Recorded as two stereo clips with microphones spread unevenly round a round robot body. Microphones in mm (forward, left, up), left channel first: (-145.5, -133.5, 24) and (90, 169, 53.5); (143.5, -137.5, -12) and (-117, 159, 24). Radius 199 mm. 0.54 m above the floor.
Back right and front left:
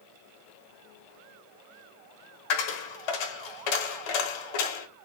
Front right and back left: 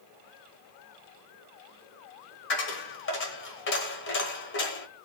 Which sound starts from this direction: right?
A dropped coin, at 2.5 s.